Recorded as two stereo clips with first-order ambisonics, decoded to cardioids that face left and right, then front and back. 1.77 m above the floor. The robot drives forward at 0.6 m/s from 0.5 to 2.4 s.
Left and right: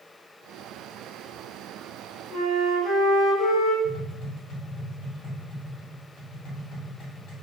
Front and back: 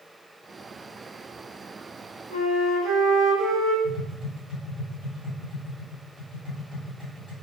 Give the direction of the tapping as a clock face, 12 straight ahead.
8 o'clock.